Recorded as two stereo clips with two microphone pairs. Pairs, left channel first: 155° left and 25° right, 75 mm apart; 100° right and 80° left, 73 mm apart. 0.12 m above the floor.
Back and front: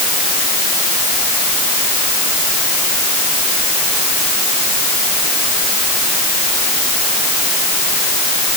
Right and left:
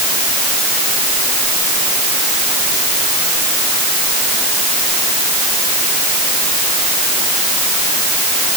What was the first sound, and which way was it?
Only background noise.